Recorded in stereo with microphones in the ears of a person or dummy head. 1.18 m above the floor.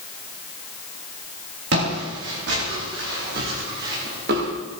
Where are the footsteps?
70° right (ahead or behind), 9.5 m; by 4.5 s 65° right (ahead or behind), 8.5 m.